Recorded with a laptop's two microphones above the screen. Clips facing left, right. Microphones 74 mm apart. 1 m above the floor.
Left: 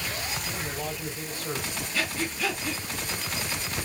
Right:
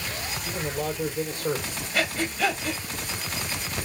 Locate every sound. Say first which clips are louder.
0.5 s a man speaking: right 4 dB; 65° right (ahead or behind), 3.5 m
1.9 s breathing: right 5 dB; 70° right (ahead or behind), 1.5 m